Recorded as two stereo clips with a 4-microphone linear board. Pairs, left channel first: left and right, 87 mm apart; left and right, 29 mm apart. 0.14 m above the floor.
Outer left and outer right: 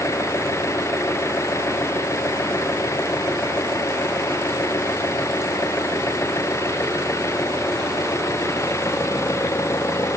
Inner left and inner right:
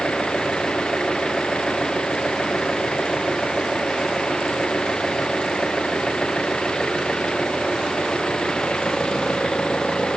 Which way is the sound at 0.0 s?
35° left (ahead or behind).